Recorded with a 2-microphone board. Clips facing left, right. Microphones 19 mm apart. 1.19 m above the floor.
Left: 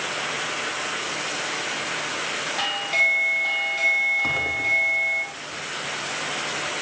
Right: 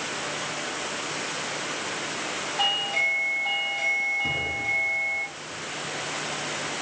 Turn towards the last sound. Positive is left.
turn(degrees=85)